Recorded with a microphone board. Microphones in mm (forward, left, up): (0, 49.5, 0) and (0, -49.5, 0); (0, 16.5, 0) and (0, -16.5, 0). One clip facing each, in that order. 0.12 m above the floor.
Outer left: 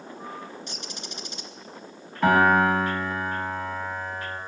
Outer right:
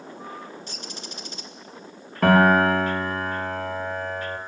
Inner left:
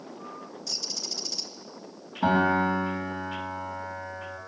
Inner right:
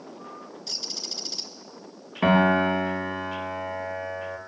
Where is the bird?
35° right (ahead or behind), 1.6 m.